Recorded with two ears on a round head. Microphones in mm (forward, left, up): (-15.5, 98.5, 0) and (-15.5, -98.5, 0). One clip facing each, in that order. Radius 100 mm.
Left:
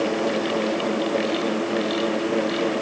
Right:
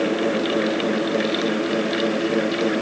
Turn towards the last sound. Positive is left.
No sound to turn to.